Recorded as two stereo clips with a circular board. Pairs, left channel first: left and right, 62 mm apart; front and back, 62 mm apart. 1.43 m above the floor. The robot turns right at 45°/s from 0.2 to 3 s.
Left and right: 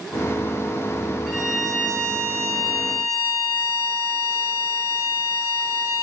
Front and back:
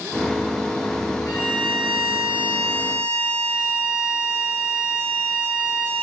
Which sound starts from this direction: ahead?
A violin, at 1.3 s.